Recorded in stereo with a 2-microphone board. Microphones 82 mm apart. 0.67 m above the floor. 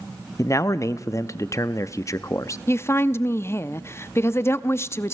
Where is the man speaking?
35° left (ahead or behind), 0.6 m.